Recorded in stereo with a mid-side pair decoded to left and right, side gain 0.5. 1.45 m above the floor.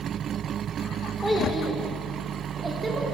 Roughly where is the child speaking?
Ahead.